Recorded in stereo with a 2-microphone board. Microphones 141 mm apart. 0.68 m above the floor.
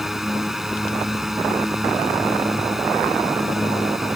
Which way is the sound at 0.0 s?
Centre (ahead or behind).